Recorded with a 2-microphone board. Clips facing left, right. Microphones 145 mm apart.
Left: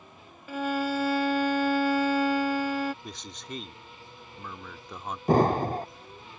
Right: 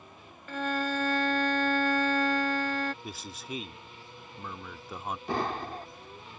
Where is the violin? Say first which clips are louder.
Left 3 dB; 10° left (ahead or behind).